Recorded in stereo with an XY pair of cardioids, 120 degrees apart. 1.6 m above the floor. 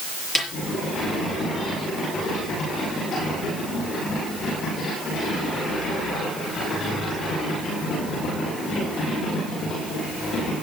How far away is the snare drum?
About 6.5 m.